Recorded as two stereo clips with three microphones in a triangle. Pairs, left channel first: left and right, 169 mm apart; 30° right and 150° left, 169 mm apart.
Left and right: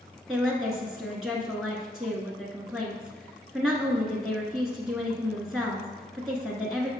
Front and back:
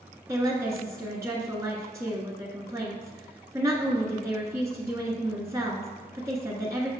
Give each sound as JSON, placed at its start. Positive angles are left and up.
{"t": 0.3, "sound": "a woman speaking", "azimuth_deg": -175, "distance_m": 1.1}